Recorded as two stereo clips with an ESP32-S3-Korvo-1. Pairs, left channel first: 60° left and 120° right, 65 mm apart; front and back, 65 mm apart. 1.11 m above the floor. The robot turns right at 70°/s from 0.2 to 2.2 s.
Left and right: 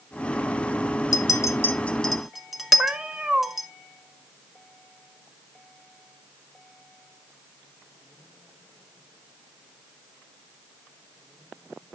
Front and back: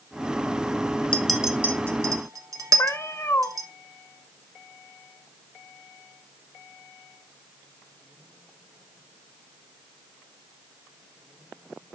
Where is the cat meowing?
45° right, 0.8 m.